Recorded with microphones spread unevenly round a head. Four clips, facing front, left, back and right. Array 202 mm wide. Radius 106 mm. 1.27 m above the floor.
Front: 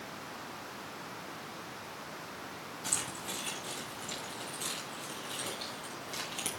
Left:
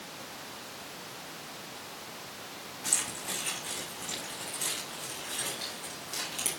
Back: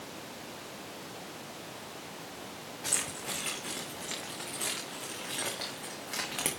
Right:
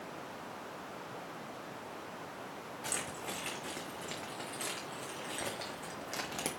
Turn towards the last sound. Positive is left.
turn(degrees=-135)